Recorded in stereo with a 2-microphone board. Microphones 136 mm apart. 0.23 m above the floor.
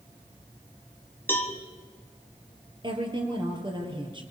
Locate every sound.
1.3 s a cowbell: 15° left (ahead or behind), 1.9 m
2.8 s a woman speaking: 35° right (ahead or behind), 4.5 m